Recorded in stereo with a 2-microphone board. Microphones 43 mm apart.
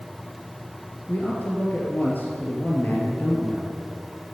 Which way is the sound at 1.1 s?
45° left (ahead or behind).